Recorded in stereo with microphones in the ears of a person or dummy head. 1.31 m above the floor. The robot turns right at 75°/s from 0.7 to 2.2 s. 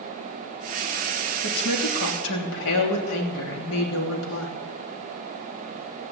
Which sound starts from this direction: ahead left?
A woman speaking, at 1.4 s.